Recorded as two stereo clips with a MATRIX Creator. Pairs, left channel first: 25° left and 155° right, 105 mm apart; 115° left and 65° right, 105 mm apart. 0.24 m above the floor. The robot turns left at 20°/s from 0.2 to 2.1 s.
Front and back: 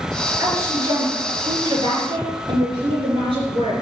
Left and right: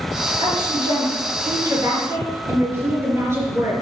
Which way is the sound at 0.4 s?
95° right.